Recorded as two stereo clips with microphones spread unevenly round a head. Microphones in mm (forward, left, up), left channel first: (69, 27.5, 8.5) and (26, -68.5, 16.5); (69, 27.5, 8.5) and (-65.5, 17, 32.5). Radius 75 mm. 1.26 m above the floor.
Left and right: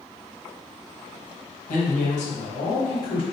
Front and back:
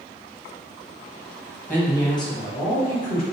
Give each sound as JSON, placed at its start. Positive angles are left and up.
{"t": 1.7, "sound": "a man speaking", "azimuth_deg": 85, "distance_m": 1.0}